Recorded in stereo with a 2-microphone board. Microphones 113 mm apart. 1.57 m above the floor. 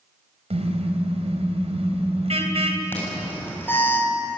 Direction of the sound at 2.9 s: 20° left (ahead or behind).